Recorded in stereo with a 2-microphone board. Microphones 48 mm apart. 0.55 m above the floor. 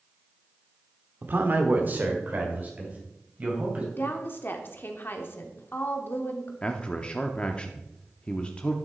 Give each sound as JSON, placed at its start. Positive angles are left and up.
{"t": 1.2, "sound": "a man speaking", "side_deg": -45, "distance_m": 1.3}
{"t": 3.9, "sound": "a woman speaking", "side_deg": 45, "distance_m": 1.2}
{"t": 6.6, "sound": "a man speaking", "side_deg": 20, "distance_m": 0.6}